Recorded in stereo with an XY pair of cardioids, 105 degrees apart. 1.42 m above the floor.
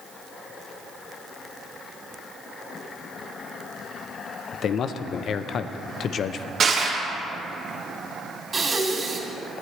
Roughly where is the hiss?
I don't hear a hiss.